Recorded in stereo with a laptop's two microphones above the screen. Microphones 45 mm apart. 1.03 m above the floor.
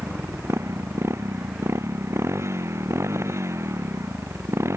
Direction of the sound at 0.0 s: 85° right.